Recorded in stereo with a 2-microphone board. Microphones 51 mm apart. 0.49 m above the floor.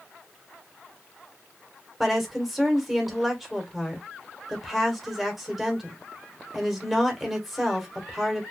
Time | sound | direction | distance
2.0 | a woman speaking | 5° right (ahead or behind) | 1.6 m